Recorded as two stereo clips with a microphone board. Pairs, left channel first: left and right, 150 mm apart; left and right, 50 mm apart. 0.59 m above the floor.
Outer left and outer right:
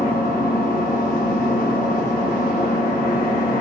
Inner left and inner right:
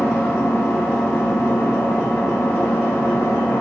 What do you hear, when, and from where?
0.0 s an engine running: 65° left (ahead or behind), 0.8 m